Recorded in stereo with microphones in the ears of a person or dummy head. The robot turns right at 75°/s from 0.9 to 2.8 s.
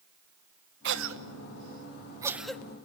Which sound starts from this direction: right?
A cough, at 0.8 s.